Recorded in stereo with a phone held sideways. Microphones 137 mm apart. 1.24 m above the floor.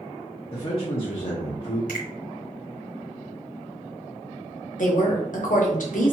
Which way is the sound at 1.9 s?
80° left.